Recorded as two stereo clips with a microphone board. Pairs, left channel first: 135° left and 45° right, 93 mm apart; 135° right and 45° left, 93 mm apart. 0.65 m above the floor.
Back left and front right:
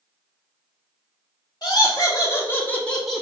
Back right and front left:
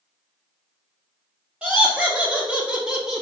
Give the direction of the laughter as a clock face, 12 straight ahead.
8 o'clock.